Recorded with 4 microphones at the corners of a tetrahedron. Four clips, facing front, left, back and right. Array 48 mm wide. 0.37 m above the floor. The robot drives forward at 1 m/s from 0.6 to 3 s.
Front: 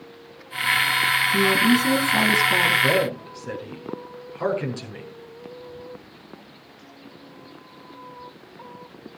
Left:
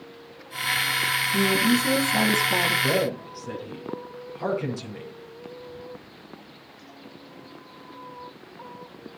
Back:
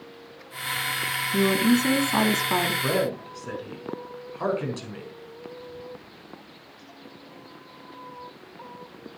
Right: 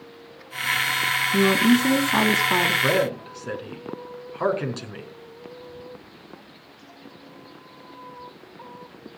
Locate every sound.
1.3 s a woman speaking: 100° right, 3 m; by 2.7 s 125° right, 3.5 m
2.8 s a man speaking: 90° right, 5 m; by 5.1 s 95° right, 5 m